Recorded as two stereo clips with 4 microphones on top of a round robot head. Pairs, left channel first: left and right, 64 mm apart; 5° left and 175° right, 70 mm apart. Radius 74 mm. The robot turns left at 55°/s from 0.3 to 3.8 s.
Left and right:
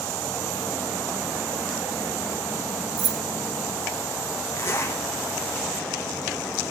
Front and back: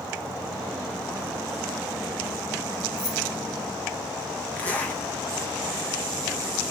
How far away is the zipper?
About 0.6 m.